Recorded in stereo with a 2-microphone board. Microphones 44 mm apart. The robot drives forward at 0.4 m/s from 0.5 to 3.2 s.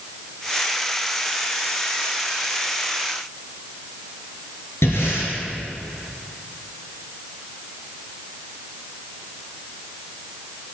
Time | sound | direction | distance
4.8 | breathing | 85° left | 4 m